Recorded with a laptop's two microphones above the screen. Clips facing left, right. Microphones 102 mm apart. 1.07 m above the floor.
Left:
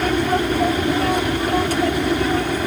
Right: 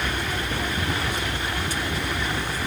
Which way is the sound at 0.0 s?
60° left (ahead or behind).